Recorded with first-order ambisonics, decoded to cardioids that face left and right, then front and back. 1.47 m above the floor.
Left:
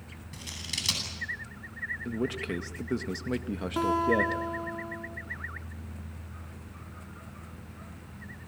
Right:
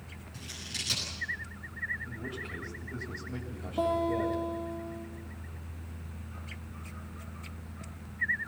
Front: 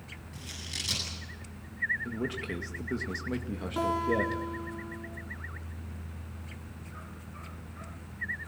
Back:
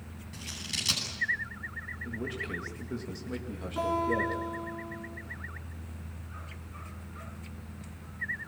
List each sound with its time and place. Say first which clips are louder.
0.3 s scissors: left 3 dB, back 3 dB; 105° left, 10 m
2.0 s a man speaking: left 7 dB, front 1 dB; 75° left, 2 m
3.8 s a guitar: left 3 dB, even; 70° left, 4.5 m